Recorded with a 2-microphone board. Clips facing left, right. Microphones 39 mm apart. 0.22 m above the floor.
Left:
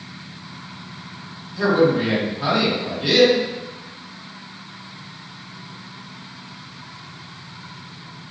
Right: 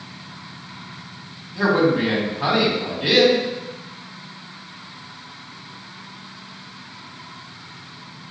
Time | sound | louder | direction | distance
1.6 | a man speaking | left 1 dB | 25° right (ahead or behind) | 1.6 m